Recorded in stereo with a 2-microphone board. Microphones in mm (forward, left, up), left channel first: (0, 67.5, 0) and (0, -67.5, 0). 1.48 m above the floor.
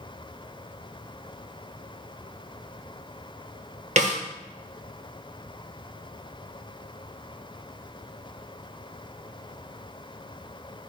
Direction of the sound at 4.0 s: 60° right (ahead or behind).